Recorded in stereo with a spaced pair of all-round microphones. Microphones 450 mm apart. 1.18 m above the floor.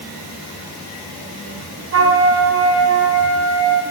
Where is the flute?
30° right (ahead or behind), 0.9 m.